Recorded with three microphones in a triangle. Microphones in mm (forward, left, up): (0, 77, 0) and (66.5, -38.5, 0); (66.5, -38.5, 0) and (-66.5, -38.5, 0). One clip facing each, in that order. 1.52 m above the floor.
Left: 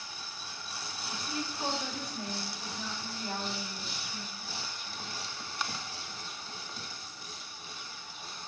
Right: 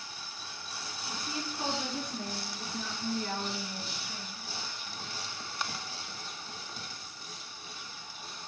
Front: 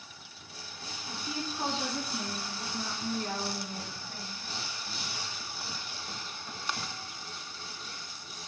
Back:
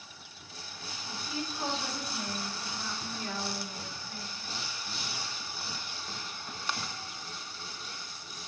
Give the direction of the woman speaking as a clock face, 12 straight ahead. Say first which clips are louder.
Left 1 dB, front 1 dB; 1 o'clock.